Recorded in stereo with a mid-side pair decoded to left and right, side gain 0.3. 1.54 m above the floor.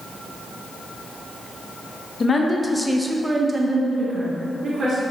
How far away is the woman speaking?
About 0.6 m.